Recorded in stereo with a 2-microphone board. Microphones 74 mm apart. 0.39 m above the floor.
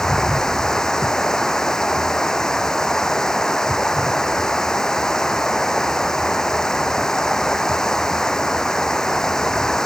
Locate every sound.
0.0 s running water: 10° left (ahead or behind)